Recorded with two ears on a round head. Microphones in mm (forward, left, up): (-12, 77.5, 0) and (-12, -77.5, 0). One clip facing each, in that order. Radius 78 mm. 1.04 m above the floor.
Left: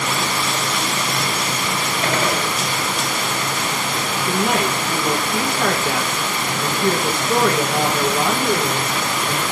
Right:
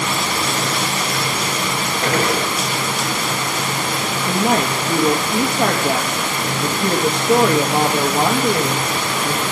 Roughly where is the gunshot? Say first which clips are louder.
Right 3 dB; right.